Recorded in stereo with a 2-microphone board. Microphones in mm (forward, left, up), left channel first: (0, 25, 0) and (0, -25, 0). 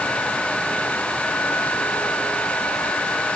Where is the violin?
No violin in this recording.